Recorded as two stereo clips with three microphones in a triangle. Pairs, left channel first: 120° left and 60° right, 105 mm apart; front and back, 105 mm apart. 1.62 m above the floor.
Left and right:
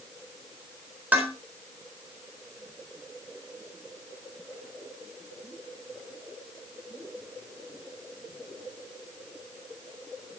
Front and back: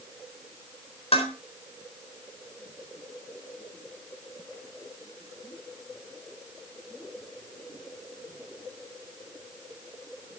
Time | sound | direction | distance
1.1 | dishes clattering | 15° left | 4 m